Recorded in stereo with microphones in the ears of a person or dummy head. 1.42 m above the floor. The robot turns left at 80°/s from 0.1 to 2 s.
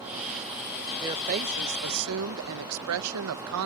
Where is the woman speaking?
20° right; by 3.7 s 100° right.